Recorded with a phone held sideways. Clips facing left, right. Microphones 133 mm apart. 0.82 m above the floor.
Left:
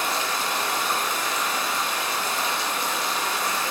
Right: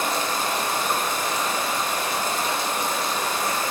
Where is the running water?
45° right (ahead or behind), 1.2 m.